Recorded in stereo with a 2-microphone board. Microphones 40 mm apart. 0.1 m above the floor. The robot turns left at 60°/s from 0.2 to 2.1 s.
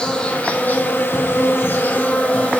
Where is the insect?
160° left, 0.9 m; by 2.6 s 45° left, 0.9 m.